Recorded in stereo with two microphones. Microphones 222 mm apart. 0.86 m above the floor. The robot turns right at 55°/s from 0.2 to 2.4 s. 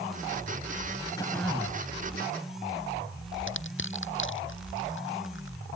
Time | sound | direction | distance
1.2 | throat clearing | 160° left | ?
3.5 | crushing | 60° left (ahead or behind) | ?